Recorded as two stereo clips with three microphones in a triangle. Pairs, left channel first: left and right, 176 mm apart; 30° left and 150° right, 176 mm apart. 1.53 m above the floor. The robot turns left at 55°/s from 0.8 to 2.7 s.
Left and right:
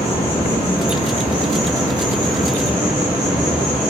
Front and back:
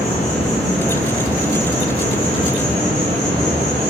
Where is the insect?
85° left, 1.0 m; by 3.9 s 20° right, 1.0 m.